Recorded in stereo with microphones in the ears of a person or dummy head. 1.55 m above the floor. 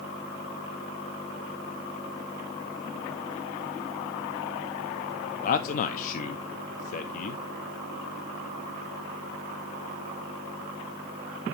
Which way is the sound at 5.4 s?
50° left (ahead or behind).